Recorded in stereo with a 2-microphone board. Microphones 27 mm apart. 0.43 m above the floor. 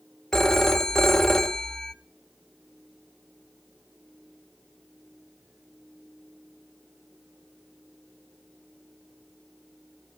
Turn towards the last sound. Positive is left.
turn(degrees=20)  # may be behind; listen again after turning